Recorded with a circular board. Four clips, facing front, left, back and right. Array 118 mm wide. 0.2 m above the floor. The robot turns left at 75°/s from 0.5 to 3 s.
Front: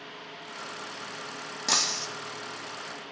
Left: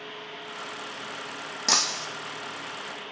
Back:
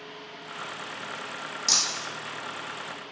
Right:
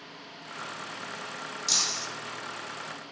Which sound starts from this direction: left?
Breaking glass, at 1.7 s.